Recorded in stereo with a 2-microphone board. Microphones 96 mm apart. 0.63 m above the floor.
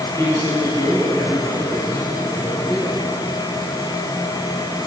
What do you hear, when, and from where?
0.2 s a man speaking: 35° left (ahead or behind), 6 m